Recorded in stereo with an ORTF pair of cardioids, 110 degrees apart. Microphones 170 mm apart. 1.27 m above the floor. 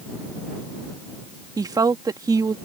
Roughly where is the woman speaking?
Ahead.